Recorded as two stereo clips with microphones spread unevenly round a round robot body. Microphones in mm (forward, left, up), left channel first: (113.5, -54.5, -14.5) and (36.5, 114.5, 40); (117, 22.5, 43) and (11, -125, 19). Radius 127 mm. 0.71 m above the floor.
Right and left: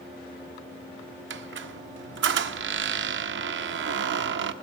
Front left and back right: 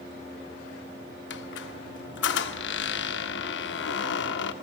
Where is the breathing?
I don't hear breathing.